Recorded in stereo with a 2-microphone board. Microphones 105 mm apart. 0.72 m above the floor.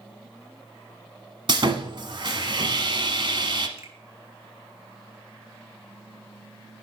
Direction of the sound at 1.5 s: 50° right (ahead or behind).